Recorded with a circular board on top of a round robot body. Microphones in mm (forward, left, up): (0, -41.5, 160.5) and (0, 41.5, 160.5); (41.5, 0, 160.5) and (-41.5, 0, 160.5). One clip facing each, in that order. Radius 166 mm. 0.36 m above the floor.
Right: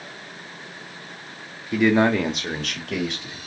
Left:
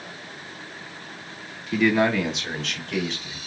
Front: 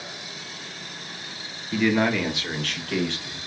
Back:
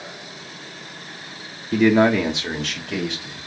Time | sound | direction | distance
1.7 | a man speaking | 165° right | 1.0 m